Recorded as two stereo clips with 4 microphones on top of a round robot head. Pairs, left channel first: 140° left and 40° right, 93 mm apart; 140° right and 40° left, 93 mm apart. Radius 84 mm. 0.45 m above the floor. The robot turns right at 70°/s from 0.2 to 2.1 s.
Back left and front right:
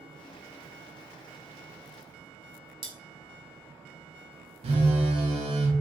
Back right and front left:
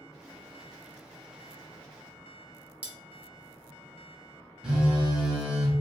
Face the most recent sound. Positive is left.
turn(degrees=-40)